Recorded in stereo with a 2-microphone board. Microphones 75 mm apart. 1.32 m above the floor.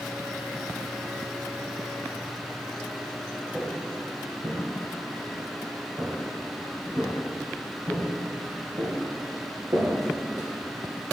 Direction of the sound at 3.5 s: 10° right (ahead or behind).